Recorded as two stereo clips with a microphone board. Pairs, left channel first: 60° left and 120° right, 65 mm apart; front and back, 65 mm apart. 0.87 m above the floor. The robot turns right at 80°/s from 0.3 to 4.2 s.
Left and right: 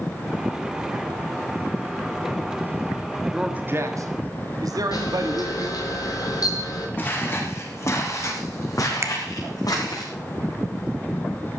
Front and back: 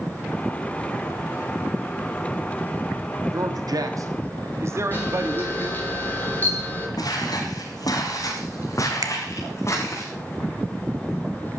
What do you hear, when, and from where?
3.3 s a man speaking: 155° left, 1.4 m; by 5.8 s 135° right, 1.4 m
4.9 s a camera shutter: 60° left, 4 m
7.0 s footsteps: straight ahead, 3.5 m; by 10.0 s 50° left, 5 m
9.0 s a finger snap: 160° right, 1.6 m